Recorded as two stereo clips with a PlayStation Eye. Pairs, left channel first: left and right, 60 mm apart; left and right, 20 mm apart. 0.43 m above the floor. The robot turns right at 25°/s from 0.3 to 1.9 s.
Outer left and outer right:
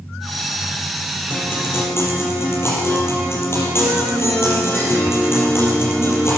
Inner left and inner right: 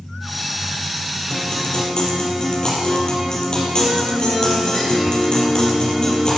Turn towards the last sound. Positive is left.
turn(degrees=45)  # may be behind; listen again after turning